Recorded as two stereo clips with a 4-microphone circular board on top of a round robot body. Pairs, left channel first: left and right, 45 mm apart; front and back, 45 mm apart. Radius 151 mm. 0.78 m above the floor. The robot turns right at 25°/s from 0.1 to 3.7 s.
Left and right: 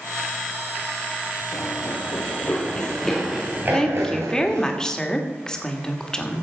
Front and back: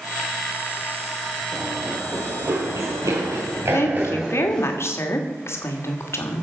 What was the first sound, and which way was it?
Running footsteps, 115° left.